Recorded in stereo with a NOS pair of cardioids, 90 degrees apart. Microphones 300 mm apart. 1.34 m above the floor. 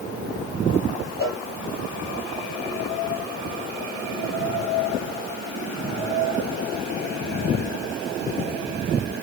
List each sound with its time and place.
1.2 s a cowbell: 10° right, 2 m